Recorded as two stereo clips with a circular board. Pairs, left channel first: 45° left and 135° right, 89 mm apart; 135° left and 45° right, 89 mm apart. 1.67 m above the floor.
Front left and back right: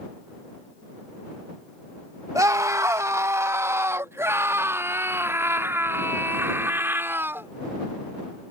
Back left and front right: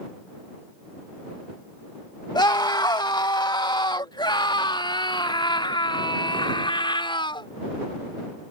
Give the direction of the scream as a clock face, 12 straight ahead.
6 o'clock.